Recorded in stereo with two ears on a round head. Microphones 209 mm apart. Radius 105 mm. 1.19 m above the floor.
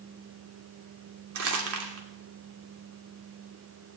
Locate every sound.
1.4 s crumpling: 65° right (ahead or behind), 3 m